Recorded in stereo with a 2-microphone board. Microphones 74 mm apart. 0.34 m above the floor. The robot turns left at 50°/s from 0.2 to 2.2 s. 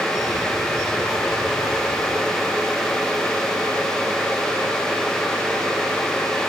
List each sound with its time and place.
Only background noise.